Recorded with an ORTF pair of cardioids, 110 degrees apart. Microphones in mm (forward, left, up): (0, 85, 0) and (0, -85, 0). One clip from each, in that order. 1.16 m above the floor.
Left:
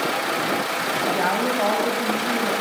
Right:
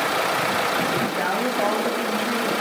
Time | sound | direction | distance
1.0 | a woman speaking | 10° left | 8.5 m